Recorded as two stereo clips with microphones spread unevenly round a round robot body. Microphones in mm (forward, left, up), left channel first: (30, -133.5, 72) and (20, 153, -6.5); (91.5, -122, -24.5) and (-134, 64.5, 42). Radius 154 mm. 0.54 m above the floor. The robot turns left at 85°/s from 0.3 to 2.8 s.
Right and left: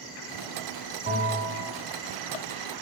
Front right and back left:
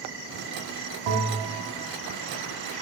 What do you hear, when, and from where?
1.1 s a bell: 160° left, 1.9 m; by 1.8 s 100° left, 1.9 m